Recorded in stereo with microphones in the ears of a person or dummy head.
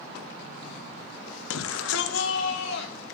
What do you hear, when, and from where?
1.5 s a shout: 80° left, 1.1 m; by 3.1 s 70° left (ahead or behind), 3 m